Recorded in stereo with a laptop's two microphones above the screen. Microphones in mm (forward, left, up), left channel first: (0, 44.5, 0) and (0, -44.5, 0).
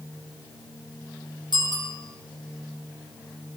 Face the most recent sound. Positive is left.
turn(degrees=55)  # may be behind; listen again after turning